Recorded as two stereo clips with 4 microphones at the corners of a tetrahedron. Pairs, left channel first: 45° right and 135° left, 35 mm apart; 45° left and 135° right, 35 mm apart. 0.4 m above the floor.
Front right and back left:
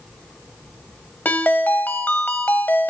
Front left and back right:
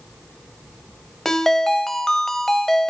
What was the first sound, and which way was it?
A ringtone, 35° right.